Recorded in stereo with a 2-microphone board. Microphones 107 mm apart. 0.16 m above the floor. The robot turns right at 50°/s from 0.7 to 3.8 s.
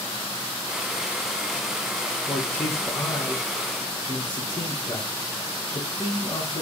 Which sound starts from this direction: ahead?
A man speaking, at 2.3 s.